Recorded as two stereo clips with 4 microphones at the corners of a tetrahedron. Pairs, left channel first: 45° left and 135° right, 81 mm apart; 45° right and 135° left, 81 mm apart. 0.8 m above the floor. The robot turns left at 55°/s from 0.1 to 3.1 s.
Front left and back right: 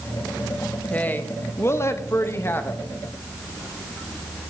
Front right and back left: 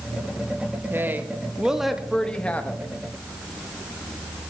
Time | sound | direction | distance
0.9 | a woman speaking | 100° left | 0.7 m